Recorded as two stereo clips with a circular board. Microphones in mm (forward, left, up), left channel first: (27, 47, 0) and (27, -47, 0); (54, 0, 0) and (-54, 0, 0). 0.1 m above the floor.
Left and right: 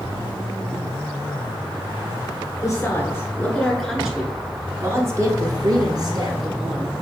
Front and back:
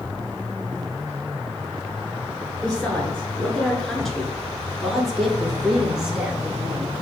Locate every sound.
2.6 s a woman speaking: 70° left, 1.2 m; by 6.9 s 100° right, 1.9 m